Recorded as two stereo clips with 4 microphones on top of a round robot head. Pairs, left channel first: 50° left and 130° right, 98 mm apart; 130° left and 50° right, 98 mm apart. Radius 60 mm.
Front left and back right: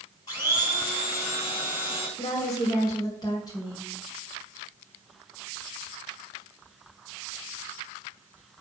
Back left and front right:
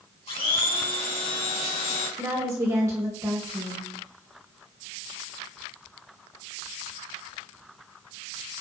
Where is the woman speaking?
5° left, 2 m.